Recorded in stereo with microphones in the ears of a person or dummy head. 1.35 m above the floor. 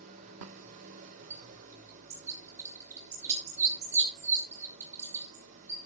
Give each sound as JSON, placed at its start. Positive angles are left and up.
{"t": 0.0, "sound": "an engine running", "side_deg": -45, "distance_m": 3.0}
{"t": 1.3, "sound": "a bird", "side_deg": -15, "distance_m": 4.5}